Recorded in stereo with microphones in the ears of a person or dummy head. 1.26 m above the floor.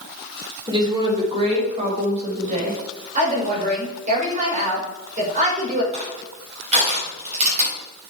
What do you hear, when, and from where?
0.7 s a woman speaking: 25° right (ahead or behind), 3 m; by 2.8 s 40° right (ahead or behind), 5.5 m
3.1 s a woman speaking: 40° right (ahead or behind), 5.5 m
5.9 s crushing: 35° right (ahead or behind), 5 m